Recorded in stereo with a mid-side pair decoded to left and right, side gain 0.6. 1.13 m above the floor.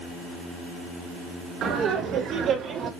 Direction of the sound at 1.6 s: 50° right.